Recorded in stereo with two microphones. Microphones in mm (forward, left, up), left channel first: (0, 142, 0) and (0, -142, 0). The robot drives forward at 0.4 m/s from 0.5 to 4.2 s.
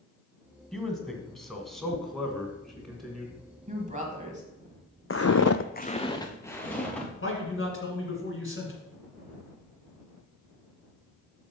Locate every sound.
0.7 s a man speaking: centre (ahead or behind), 1.4 m
3.7 s a woman speaking: 25° right (ahead or behind), 1.4 m
5.1 s footsteps: 50° left (ahead or behind), 0.6 m; by 7.1 s 5° left (ahead or behind), 2.5 m
7.2 s a man speaking: 45° left (ahead or behind), 2 m